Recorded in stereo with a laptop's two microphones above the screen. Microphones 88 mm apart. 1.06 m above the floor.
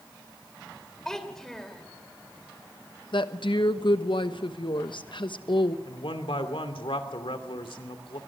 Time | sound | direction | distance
1.1 | a child speaking | 5° left (ahead or behind) | 2.5 m
3.1 | a woman speaking | 65° left (ahead or behind) | 1.1 m
5.8 | a man speaking | 85° left | 2.5 m